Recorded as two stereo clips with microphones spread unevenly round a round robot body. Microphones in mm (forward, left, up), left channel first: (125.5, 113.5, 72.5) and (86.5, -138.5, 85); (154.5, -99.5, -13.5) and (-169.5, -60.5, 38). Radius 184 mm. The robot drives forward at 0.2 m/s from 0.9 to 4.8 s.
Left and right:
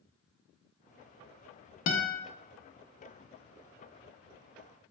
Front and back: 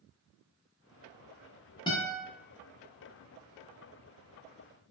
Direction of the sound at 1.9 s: 75° left.